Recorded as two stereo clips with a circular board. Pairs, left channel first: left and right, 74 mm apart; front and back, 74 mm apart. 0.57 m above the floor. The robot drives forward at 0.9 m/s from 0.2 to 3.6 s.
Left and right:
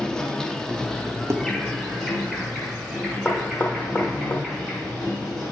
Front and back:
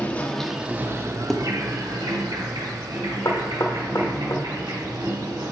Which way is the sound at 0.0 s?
30° left.